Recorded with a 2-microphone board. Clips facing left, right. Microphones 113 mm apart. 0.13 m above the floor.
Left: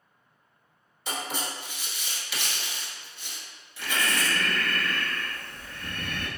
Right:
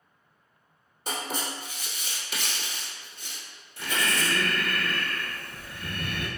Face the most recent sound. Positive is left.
turn(degrees=-10)  # may be behind; listen again after turning